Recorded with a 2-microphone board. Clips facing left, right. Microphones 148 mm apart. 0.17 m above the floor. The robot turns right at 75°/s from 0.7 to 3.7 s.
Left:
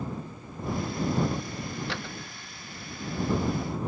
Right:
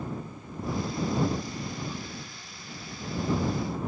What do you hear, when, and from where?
1.9 s a door slam: 80° left; by 2.2 s 60° left (ahead or behind)